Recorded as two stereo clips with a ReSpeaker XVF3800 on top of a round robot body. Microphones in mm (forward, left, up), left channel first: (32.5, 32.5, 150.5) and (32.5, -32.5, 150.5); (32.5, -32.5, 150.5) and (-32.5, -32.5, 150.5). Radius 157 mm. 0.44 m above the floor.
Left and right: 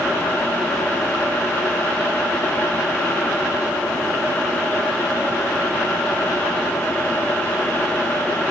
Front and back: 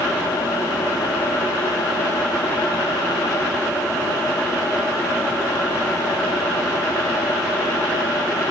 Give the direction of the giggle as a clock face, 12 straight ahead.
No giggle in this recording.